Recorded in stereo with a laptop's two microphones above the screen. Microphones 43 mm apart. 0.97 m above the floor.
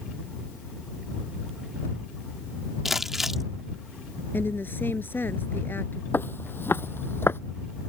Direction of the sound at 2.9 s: 5° right (ahead or behind).